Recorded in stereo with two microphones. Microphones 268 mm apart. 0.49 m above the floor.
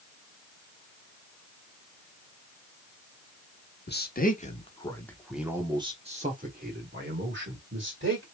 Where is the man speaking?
40° left (ahead or behind), 1.3 m; by 8.2 s 50° right (ahead or behind), 2 m.